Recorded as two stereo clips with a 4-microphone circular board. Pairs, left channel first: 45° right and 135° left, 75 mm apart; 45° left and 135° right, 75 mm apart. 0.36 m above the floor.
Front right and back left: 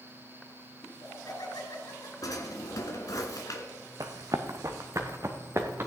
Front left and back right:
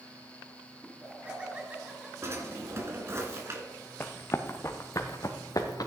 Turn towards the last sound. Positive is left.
turn(degrees=80)